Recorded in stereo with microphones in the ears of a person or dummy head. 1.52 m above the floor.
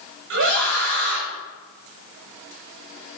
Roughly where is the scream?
Right.